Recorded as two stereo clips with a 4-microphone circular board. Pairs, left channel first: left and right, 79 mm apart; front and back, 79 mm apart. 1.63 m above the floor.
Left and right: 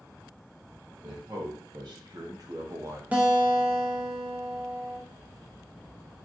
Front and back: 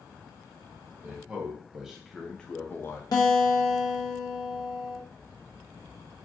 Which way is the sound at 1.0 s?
110° right.